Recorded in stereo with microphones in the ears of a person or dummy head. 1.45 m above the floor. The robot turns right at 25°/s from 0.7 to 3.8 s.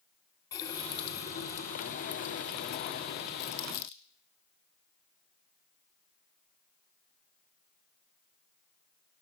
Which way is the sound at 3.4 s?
45° left (ahead or behind).